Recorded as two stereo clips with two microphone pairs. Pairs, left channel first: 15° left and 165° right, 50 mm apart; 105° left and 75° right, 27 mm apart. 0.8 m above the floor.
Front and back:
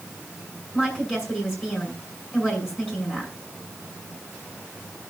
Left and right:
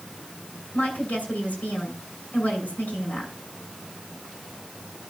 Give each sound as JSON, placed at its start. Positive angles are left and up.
{"t": 0.7, "sound": "a woman speaking", "azimuth_deg": 115, "distance_m": 6.5}